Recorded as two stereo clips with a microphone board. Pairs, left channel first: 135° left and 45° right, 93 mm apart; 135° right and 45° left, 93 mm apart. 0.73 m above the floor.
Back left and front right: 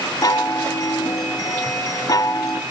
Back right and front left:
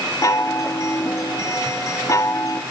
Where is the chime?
175° left, 2.0 m.